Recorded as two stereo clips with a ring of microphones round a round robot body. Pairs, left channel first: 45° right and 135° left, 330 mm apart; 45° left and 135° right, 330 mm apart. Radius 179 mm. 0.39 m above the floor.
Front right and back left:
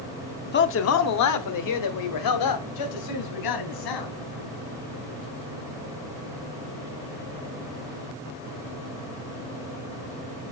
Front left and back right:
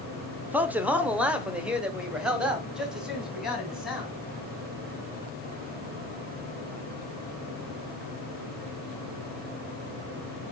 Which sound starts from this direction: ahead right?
A man speaking, at 0.5 s.